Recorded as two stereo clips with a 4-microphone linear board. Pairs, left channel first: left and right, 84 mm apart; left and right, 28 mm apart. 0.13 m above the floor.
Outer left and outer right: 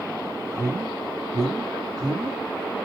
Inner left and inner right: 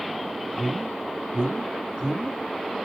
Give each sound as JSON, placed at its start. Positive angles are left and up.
{"t": 0.5, "sound": "a man speaking", "side_deg": -45, "distance_m": 2.5}